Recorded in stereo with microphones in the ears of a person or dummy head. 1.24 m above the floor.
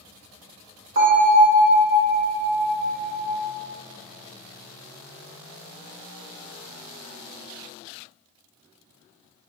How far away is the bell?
About 1.2 m.